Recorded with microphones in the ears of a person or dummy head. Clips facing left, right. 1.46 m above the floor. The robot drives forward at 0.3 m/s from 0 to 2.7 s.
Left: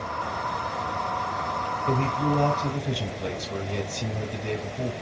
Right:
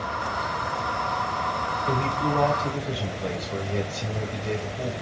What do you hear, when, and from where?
1.9 s a man speaking: 30° left (ahead or behind), 2.5 m